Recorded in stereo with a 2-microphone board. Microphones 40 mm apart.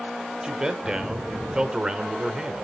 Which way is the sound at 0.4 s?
20° right (ahead or behind).